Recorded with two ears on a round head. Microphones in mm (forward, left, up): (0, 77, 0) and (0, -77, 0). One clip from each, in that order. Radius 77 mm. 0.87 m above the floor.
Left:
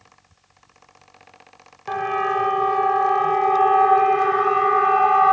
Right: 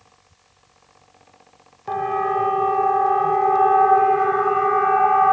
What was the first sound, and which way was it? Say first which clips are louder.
A siren: even; 60° left (ahead or behind).